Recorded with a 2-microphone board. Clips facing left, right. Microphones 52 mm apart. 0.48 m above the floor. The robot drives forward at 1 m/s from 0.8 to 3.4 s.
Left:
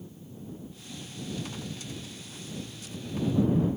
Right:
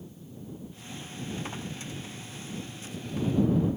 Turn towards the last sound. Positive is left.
No sound to turn to.